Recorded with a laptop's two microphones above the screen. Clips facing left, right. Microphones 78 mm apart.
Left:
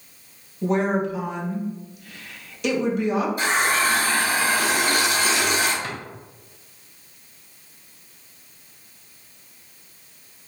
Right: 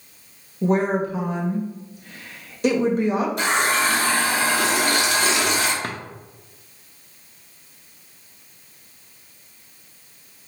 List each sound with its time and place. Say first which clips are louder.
0.6 s a woman speaking: right 1 dB; 35° right (ahead or behind), 1.5 m
3.4 s a running tap: right 1 dB; 75° right (ahead or behind), 1.3 m
5.8 s a drawer: right 2 dB; 50° right (ahead or behind), 0.7 m